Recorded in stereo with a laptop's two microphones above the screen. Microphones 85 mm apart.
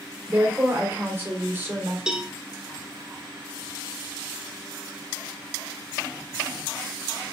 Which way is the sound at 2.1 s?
10° right (ahead or behind).